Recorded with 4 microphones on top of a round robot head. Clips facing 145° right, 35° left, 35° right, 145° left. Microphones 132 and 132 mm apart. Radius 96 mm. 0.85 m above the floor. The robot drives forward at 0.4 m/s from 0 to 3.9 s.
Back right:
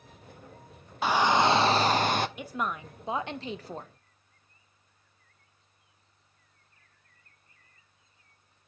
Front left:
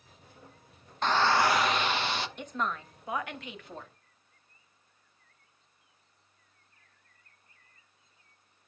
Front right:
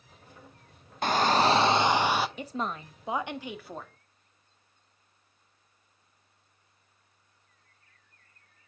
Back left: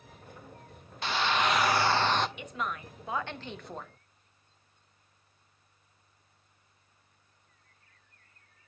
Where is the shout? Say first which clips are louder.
Back right 2 dB, front right 5 dB; 65° right, 0.7 m; by 2.3 s 120° right, 0.7 m.